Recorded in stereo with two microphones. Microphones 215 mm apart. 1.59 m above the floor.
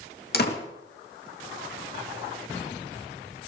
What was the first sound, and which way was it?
A door slam, 50° left (ahead or behind).